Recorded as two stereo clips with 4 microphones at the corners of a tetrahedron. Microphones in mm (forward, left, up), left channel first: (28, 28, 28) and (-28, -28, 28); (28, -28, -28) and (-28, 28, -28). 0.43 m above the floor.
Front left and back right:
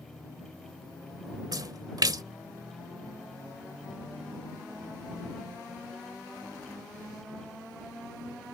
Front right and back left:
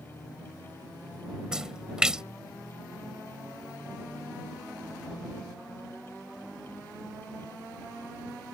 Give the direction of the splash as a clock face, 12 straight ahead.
5 o'clock.